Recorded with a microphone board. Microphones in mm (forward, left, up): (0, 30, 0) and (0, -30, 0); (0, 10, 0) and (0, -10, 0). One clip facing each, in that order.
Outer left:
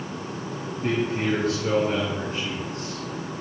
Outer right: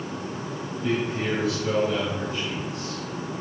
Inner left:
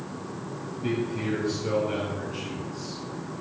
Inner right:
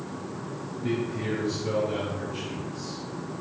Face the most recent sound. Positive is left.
turn(degrees=40)  # may be behind; listen again after turning